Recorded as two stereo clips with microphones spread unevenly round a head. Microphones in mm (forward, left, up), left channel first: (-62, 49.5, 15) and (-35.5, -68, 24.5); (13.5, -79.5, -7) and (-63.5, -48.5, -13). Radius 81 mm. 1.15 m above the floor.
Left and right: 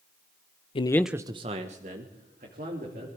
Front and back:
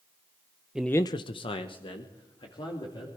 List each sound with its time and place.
0.8 s a man speaking: 85° left, 0.6 m; by 3.1 s 45° right, 3 m